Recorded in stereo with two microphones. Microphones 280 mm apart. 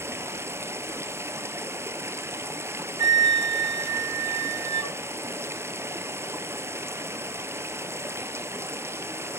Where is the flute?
65° right (ahead or behind), 0.7 m.